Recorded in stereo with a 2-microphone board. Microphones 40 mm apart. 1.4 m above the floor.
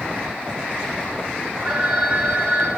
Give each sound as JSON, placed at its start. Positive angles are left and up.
{"t": 1.6, "sound": "a phone ringing", "side_deg": -40, "distance_m": 9.0}